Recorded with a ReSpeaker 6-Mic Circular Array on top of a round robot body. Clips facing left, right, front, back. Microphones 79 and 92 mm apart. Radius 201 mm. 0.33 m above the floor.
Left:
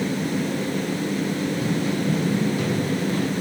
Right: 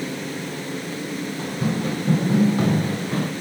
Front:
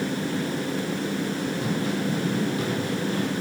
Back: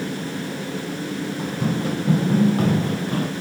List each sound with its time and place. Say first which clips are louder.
1.4 s running footsteps: left 1 dB, back 2 dB; 140° right, 4.5 m